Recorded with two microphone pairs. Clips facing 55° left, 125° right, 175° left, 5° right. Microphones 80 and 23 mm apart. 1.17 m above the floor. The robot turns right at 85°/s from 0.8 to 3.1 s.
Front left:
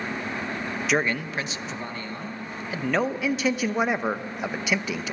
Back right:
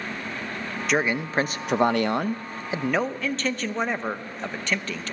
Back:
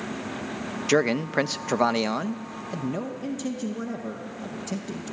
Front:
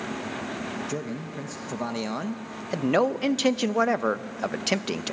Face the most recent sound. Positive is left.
turn(degrees=-30)